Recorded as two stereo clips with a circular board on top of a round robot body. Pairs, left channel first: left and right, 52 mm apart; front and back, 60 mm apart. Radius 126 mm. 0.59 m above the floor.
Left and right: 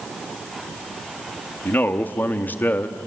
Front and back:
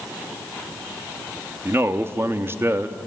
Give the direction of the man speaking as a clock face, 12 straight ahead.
7 o'clock.